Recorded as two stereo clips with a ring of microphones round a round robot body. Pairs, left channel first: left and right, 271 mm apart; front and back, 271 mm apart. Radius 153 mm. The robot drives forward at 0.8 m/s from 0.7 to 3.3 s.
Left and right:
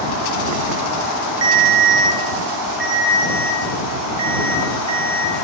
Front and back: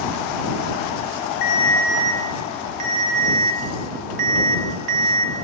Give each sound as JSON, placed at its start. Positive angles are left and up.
{"t": 1.4, "sound": "a ringtone", "azimuth_deg": -55, "distance_m": 0.6}